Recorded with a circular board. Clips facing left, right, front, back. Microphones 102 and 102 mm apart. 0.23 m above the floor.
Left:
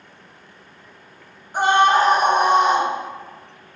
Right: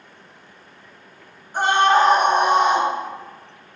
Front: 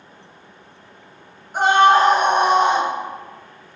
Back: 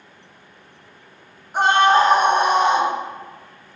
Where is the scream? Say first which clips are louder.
Left 1 dB, front 1 dB; 90° left, 1.3 m; by 2.9 s 5° right, 1.7 m.